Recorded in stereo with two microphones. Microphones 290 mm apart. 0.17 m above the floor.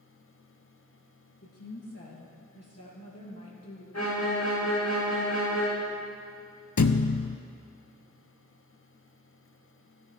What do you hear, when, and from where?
1.4 s a woman speaking: 55° left (ahead or behind), 2.5 m
3.9 s a violin: 60° left (ahead or behind), 3.5 m
6.8 s a thud: 80° left, 0.6 m